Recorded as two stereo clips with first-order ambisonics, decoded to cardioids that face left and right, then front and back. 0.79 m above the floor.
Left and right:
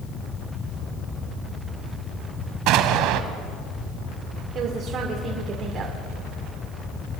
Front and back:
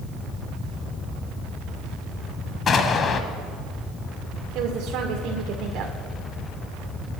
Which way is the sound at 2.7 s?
65° right.